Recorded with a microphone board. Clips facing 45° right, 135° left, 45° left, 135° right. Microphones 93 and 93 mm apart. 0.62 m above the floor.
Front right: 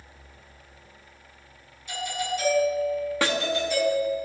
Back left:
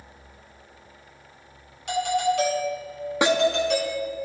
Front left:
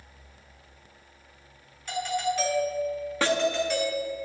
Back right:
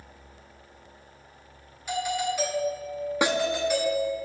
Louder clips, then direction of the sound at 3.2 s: Back left 7 dB, even; 175° left.